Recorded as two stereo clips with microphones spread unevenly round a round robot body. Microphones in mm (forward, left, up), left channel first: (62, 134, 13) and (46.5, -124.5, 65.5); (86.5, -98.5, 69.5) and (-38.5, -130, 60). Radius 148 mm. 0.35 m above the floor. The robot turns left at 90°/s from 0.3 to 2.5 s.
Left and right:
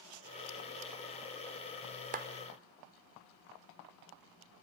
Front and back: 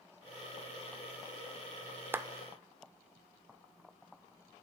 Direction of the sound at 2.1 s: 135° right.